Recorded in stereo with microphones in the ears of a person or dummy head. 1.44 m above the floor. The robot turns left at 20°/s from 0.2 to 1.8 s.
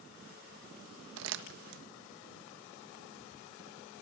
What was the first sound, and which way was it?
Crumpling, 75° right (ahead or behind).